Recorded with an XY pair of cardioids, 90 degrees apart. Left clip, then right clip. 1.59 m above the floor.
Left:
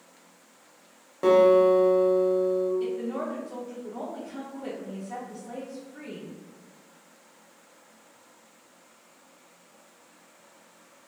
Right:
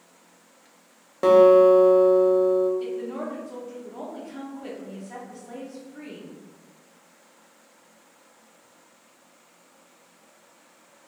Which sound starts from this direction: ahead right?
A guitar, at 1.2 s.